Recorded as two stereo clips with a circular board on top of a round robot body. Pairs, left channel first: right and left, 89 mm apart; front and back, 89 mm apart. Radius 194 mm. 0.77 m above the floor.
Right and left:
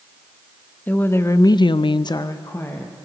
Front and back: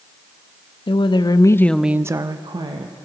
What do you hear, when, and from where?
0.9 s a woman speaking: 20° right, 0.9 m; by 3.0 s 155° right, 1.1 m